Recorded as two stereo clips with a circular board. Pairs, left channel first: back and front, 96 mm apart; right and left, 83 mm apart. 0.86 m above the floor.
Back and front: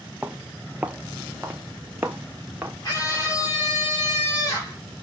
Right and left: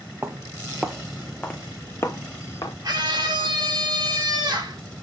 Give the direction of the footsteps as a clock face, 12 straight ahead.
10 o'clock.